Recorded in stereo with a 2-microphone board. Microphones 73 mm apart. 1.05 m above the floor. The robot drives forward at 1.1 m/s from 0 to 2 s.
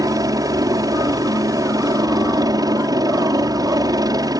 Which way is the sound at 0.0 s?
60° right (ahead or behind).